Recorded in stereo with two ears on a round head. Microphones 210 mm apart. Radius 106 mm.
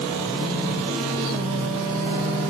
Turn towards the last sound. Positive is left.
No sound to turn to.